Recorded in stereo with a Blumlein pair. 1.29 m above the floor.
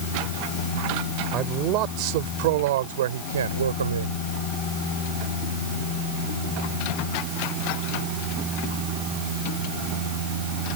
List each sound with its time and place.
1.3 s a man speaking: 35° right; by 4.3 s 75° right